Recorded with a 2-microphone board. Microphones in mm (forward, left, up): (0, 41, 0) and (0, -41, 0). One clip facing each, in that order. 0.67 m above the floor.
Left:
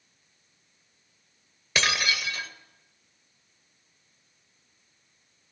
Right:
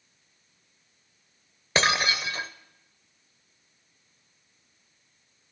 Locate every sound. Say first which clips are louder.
1.8 s breaking glass: right 3 dB; 35° right (ahead or behind), 0.8 m